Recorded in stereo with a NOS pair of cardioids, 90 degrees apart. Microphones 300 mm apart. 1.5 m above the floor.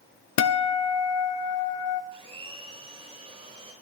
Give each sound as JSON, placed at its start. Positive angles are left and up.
{"t": 0.4, "sound": "a guitar", "azimuth_deg": 70, "distance_m": 0.5}
{"t": 2.1, "sound": "a blender", "azimuth_deg": -20, "distance_m": 3.0}